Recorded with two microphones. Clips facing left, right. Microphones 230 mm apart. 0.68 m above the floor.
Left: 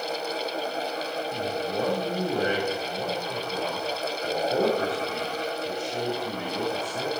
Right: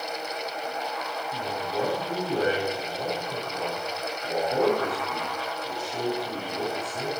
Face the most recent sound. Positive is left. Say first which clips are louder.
# left 1 dB
turn(degrees=35)  # may be behind; listen again after turning